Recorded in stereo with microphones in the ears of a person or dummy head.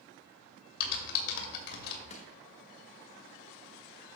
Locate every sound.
0.8 s typing on a keyboard: 50° left (ahead or behind), 2 m
2.1 s crushing: 45° left (ahead or behind), 1.4 m